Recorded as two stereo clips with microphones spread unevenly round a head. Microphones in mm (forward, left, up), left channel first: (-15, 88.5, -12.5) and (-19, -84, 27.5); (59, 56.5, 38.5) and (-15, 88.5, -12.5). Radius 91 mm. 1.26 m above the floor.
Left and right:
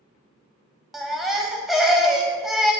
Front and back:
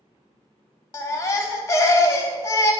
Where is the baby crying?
10° right, 0.6 m.